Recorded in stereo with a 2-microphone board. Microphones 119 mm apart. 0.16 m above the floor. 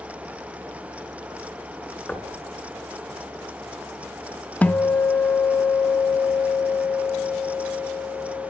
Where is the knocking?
10° left (ahead or behind), 1.7 m.